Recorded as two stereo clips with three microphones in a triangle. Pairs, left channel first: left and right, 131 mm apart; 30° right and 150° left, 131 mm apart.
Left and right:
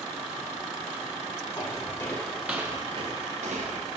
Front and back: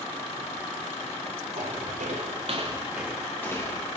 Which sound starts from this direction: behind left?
Footsteps, at 1.6 s.